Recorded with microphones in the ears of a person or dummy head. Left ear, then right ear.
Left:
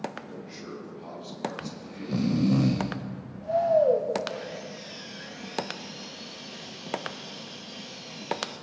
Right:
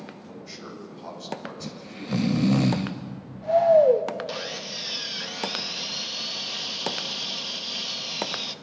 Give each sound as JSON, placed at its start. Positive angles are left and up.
{"t": 0.2, "sound": "a man speaking", "side_deg": -90, "distance_m": 8.5}
{"t": 1.6, "sound": "snoring", "side_deg": -35, "distance_m": 0.9}
{"t": 4.3, "sound": "sawing", "side_deg": -45, "distance_m": 1.0}